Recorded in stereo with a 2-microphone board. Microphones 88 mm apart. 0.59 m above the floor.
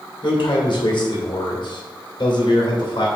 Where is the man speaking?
65° left (ahead or behind), 2.5 m.